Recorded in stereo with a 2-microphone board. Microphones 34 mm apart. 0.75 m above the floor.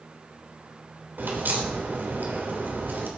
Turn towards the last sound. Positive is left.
turn(degrees=-70)  # may be behind; listen again after turning